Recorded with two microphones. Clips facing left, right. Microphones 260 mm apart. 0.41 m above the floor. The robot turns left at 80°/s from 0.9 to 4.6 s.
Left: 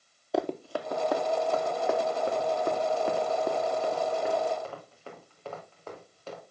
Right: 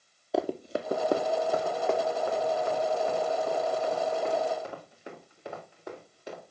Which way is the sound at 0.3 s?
Centre (ahead or behind).